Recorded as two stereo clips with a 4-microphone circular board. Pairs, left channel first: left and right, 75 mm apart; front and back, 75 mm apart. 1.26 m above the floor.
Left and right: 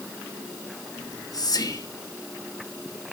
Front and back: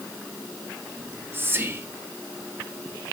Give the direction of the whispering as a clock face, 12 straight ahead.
8 o'clock.